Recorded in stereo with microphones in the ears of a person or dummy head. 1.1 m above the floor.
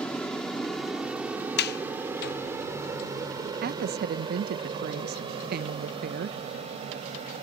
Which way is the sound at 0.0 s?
Centre (ahead or behind).